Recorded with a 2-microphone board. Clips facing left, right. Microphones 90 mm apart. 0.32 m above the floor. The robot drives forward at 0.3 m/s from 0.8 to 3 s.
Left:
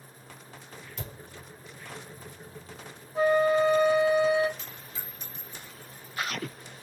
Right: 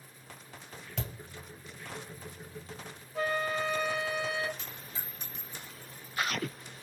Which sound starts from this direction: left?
A flute, at 3.1 s.